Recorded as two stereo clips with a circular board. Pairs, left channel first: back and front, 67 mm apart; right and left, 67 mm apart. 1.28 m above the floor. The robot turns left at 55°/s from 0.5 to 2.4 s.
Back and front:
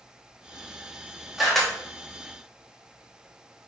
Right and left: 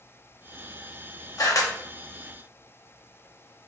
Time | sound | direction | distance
1.4 | a camera shutter | 85° right | 1.0 m